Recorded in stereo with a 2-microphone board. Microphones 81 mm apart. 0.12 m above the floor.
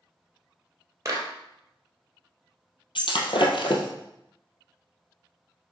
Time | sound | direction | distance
1.1 | a clap | 35° right (ahead or behind) | 2 m
3.0 | breaking glass | 70° left (ahead or behind) | 1.6 m